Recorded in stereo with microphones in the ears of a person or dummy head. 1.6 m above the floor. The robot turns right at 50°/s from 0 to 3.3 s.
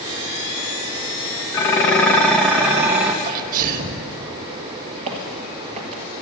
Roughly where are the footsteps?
Right.